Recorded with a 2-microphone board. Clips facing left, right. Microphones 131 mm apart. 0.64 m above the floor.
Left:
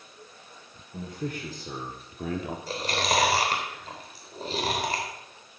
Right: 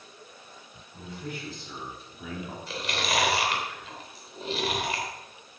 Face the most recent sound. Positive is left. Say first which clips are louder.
# left 3 dB
turn(degrees=40)  # may be behind; listen again after turning